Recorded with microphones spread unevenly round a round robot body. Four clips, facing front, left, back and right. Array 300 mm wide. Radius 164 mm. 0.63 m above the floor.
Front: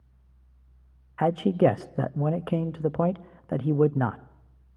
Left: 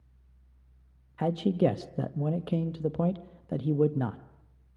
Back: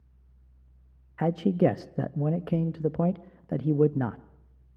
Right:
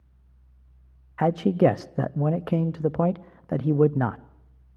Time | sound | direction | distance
1.2 | a man speaking | 90° right | 0.5 m